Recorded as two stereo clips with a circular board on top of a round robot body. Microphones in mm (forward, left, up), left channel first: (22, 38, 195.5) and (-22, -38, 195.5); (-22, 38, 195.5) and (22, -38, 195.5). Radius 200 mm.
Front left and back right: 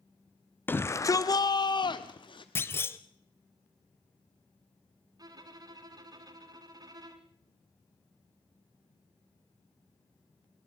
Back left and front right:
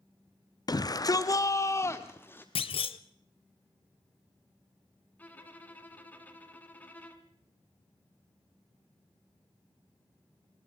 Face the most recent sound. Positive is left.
turn(degrees=-170)